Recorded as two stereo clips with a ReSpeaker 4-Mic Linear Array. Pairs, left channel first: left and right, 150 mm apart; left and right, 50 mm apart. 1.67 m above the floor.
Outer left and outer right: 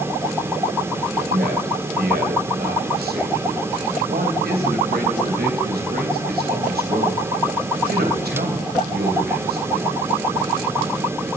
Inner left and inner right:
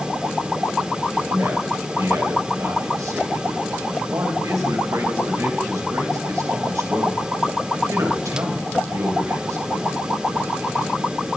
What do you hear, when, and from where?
1.3 s a man speaking: 80° right, 3 m